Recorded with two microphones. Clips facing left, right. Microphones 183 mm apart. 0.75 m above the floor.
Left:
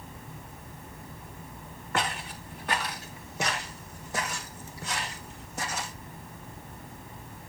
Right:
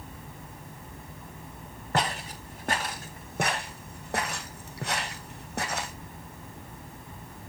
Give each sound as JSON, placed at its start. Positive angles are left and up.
{"t": 1.9, "sound": "footsteps", "side_deg": -40, "distance_m": 2.5}